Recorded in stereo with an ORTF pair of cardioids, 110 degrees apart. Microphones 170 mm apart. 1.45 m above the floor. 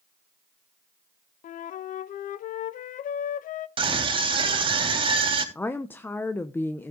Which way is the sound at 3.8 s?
30° right.